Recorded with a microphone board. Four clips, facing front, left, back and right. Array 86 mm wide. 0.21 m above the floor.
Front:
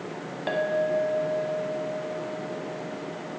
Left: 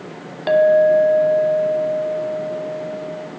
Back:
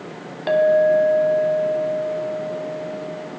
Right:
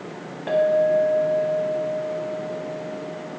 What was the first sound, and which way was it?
A clink, 110° left.